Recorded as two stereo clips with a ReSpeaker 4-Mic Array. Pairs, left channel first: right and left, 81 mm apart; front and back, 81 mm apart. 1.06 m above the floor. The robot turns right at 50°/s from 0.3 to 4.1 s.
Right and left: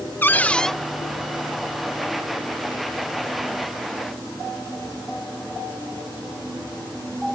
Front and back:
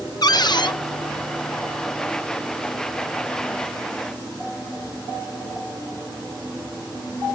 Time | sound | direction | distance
0.2 | a cupboard door | 25° right | ?